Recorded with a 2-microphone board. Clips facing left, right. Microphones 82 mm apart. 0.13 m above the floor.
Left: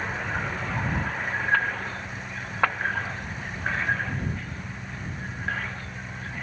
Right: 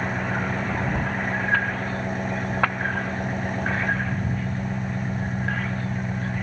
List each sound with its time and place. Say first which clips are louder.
0.0 s an engine running: right 4 dB; 50° right (ahead or behind)